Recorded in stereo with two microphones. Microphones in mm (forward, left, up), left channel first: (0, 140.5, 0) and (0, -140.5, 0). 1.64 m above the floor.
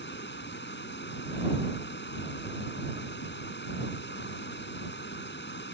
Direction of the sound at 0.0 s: 40° left (ahead or behind).